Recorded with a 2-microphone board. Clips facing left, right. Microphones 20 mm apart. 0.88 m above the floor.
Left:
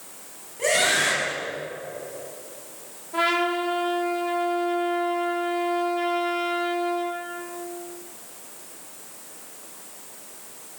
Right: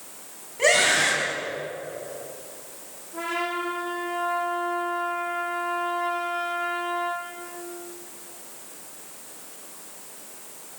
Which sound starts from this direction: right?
A scream, at 0.6 s.